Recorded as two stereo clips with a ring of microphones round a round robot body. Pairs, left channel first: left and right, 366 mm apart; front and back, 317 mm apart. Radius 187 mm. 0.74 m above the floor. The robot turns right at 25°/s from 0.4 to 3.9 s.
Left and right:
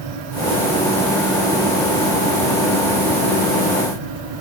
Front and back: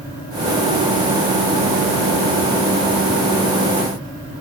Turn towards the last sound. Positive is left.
No sound to turn to.